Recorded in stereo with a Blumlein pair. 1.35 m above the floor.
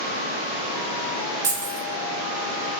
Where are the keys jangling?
55° right, 0.7 m.